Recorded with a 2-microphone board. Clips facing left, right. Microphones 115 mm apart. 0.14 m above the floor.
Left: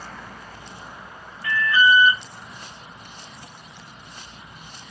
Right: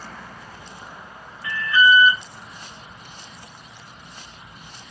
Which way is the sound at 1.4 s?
5° right (ahead or behind).